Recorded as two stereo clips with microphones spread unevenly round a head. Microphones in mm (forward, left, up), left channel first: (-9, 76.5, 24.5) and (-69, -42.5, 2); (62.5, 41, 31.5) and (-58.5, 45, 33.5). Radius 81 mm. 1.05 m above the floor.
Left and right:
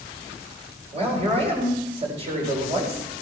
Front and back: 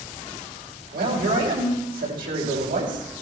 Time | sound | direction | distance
0.9 | a man speaking | 160° right | 5.5 m